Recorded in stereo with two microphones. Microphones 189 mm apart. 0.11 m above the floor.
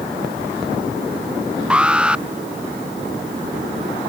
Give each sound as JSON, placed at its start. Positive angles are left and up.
{"t": 1.7, "sound": "an alarm", "side_deg": -5}